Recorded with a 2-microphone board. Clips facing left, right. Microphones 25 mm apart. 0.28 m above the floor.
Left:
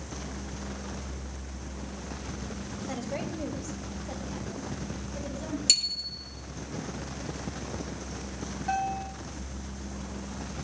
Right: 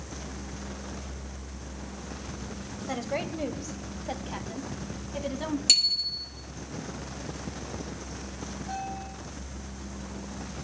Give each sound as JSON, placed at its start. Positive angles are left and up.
{"t": 2.9, "sound": "a woman speaking", "side_deg": -25, "distance_m": 1.5}
{"t": 5.7, "sound": "a bicycle bell", "side_deg": -10, "distance_m": 4.0}
{"t": 8.7, "sound": "a bell", "side_deg": 80, "distance_m": 5.0}